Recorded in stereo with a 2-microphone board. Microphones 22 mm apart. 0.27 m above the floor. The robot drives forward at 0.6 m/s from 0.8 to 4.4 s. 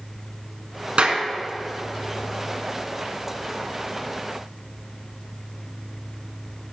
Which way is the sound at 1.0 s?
70° right (ahead or behind).